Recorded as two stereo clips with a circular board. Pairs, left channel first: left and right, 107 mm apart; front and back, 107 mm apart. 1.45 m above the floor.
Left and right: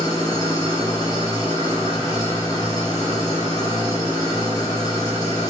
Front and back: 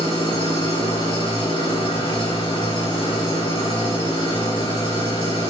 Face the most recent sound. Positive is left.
turn(degrees=35)